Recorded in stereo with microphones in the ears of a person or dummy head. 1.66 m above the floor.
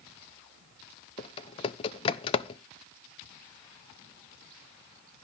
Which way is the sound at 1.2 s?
35° left (ahead or behind).